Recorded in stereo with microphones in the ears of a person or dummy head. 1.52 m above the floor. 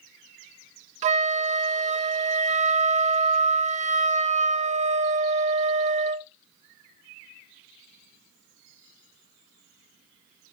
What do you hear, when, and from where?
1.0 s a flute: 35° right (ahead or behind), 0.8 m